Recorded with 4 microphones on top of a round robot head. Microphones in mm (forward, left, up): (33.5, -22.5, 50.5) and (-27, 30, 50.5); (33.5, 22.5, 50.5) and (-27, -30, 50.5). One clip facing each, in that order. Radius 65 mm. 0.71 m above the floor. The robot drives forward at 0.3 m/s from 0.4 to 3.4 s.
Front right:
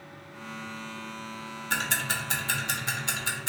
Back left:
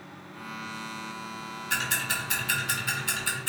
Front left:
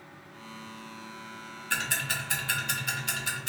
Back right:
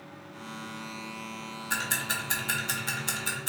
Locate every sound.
1.7 s ticking: 75° right, 1.3 m; by 3.5 s 100° right, 1.3 m